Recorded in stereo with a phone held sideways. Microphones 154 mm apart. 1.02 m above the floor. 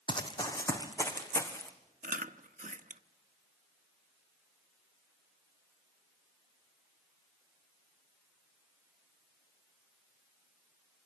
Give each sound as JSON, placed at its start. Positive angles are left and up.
{"t": 0.1, "sound": "running footsteps", "side_deg": 30, "distance_m": 2.5}
{"t": 2.0, "sound": "chewing", "side_deg": -55, "distance_m": 1.0}